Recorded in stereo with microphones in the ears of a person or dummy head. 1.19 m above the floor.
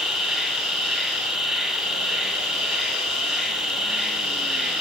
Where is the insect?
Centre (ahead or behind), 3 m.